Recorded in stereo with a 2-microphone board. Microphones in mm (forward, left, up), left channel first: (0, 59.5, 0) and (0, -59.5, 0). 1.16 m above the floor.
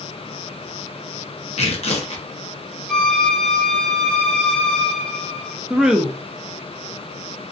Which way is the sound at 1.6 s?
60° left (ahead or behind).